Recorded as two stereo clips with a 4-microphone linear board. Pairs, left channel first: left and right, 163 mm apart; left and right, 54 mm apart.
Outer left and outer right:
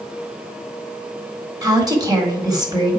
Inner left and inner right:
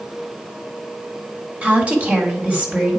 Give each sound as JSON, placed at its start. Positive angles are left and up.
{"t": 1.6, "sound": "a woman speaking", "side_deg": -25, "distance_m": 1.8}